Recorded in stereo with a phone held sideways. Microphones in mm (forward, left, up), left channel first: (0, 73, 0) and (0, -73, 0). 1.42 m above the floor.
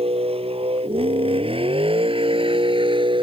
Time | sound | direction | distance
0.0 | a vehicle | 40° right (ahead or behind) | ?